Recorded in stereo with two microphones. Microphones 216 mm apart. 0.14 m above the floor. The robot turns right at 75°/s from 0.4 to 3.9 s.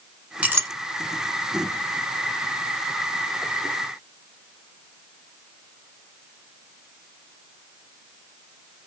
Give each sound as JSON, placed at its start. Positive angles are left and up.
{"t": 0.4, "sound": "a clink", "side_deg": -5, "distance_m": 0.8}